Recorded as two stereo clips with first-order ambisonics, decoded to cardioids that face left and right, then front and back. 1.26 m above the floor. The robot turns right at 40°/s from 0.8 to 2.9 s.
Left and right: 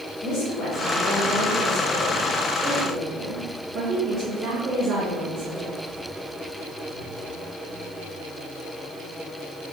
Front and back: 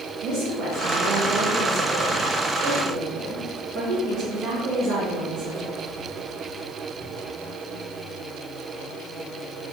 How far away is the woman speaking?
About 1.5 m.